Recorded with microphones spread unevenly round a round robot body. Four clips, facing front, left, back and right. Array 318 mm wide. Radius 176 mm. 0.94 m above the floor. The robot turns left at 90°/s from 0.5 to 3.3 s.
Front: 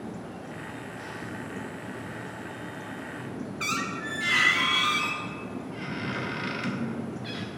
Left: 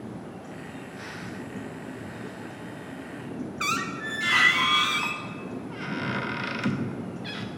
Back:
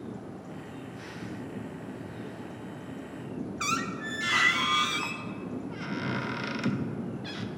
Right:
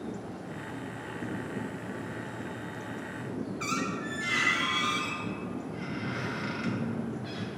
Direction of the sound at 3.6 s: 90° left.